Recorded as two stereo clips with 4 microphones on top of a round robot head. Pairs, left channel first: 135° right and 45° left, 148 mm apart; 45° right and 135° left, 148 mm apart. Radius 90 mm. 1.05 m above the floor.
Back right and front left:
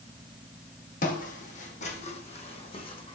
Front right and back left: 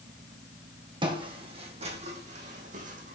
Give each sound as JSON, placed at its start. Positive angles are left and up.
{"t": 1.0, "sound": "footsteps", "azimuth_deg": -165, "distance_m": 2.0}